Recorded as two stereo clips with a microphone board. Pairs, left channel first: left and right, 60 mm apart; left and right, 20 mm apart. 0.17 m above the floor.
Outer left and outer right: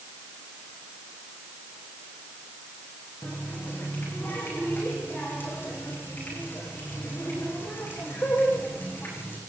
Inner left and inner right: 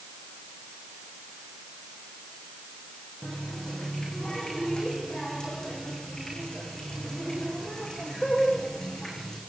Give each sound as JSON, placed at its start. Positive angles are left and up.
{"t": 3.2, "sound": "a running tap", "side_deg": 35, "distance_m": 7.0}